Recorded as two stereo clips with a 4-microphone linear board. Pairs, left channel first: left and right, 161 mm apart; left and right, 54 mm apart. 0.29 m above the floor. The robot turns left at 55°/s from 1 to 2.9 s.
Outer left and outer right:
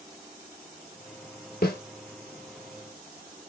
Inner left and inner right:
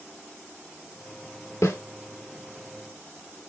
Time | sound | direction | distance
1.6 | a snare drum | 80° left | 1.2 m